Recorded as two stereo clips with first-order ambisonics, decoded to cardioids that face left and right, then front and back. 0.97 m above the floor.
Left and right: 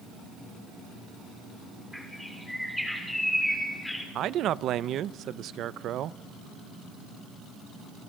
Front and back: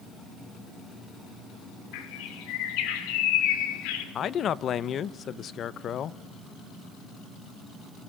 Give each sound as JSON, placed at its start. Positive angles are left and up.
{"t": 1.9, "sound": "a bird", "azimuth_deg": 5, "distance_m": 2.5}
{"t": 4.2, "sound": "a man speaking", "azimuth_deg": -50, "distance_m": 0.5}